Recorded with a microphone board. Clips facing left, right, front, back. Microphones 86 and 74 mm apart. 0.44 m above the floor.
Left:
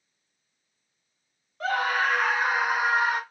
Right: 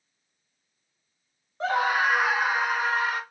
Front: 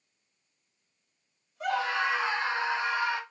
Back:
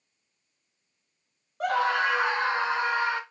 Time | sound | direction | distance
1.6 | a scream | 150° right | 1.8 m